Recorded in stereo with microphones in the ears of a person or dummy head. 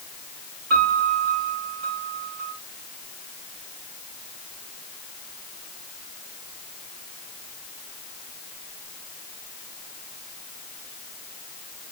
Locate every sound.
0.7 s a piano: 60° right (ahead or behind), 8 m